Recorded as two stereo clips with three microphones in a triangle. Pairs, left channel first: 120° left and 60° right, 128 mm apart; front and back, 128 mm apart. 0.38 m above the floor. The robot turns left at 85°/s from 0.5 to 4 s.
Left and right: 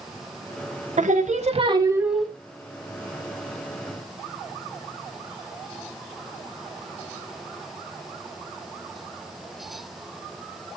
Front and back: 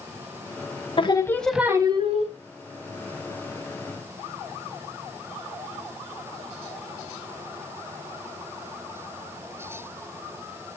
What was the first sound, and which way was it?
Singing, 45° right.